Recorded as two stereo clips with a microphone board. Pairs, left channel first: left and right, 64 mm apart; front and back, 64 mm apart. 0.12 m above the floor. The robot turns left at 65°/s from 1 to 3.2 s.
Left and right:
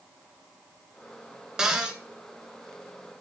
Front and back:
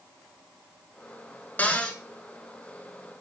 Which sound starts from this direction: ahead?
A cupboard door, at 1.6 s.